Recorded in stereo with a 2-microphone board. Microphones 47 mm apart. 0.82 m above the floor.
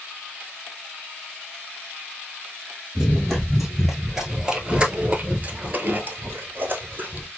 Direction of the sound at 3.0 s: 5° left (ahead or behind).